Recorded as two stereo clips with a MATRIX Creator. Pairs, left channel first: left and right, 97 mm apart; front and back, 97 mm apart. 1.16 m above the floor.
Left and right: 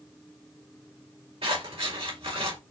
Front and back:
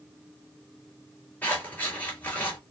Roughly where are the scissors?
Right.